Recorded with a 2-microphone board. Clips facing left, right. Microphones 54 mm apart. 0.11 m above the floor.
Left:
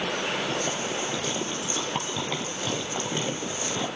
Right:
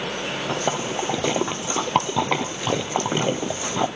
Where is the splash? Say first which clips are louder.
Right 4 dB; 65° right (ahead or behind), 1.0 m.